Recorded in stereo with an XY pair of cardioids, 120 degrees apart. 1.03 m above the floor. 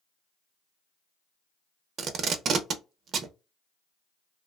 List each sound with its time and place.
2.0 s tape being pulled: 55° right, 0.6 m